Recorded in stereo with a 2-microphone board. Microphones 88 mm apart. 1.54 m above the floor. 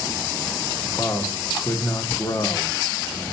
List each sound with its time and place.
0.8 s a man speaking: 45° left (ahead or behind), 1.8 m